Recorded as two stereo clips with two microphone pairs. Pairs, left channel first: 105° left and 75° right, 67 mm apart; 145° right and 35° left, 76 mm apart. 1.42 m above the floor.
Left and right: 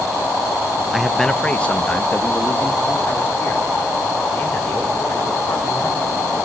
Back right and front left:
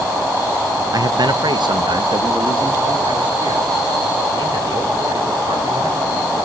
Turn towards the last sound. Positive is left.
turn(degrees=45)